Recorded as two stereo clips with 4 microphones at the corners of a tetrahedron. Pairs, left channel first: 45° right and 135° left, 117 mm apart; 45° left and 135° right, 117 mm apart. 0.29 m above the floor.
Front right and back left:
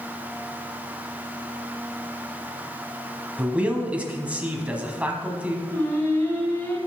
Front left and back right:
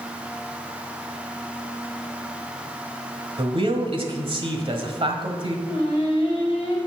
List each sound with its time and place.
3.4 s a man speaking: 150° right, 1.4 m
5.7 s singing: 15° left, 2 m